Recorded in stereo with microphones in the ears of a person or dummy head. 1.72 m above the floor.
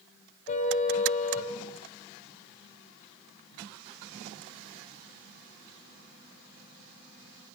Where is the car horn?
40° left (ahead or behind), 4 m.